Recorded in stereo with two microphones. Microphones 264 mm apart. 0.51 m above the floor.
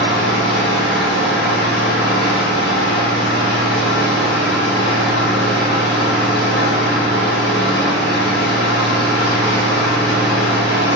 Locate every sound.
0.0 s an engine running: 70° right (ahead or behind), 1.7 m